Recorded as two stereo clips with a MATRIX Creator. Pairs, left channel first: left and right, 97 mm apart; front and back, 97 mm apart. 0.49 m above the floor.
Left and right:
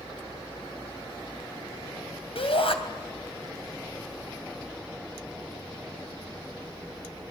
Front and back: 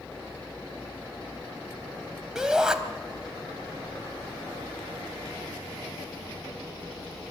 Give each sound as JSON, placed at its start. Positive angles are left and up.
{"t": 2.4, "sound": "a shout", "azimuth_deg": 95, "distance_m": 3.0}